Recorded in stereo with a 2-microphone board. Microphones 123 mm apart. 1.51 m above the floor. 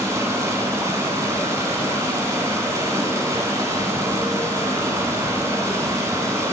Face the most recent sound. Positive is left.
turn(degrees=-25)  # may be behind; listen again after turning